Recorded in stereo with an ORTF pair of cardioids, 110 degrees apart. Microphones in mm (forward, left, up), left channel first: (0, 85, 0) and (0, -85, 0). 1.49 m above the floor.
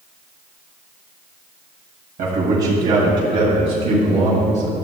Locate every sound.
2.2 s a man speaking: 60° right, 2.5 m; by 4.8 s 50° right, 5.5 m